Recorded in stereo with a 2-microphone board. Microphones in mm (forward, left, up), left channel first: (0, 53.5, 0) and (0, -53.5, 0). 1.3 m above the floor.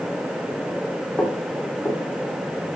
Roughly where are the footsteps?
Centre.